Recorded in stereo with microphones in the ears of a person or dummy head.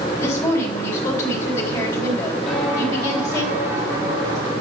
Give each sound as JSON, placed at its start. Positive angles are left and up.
{"t": 0.2, "sound": "a woman speaking", "side_deg": 15, "distance_m": 3.0}
{"t": 2.5, "sound": "footsteps", "side_deg": 0, "distance_m": 3.0}